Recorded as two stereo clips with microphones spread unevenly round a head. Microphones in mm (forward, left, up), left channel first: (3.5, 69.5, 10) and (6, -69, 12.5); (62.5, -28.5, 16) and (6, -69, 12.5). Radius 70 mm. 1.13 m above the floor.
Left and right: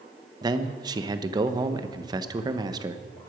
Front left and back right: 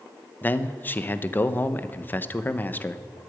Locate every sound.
0.4 s a man speaking: 25° right, 1.0 m